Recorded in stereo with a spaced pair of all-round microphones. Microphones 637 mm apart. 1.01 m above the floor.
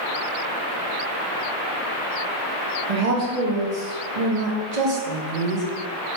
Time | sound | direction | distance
2.9 | a woman speaking | 75° right (ahead or behind) | 0.9 m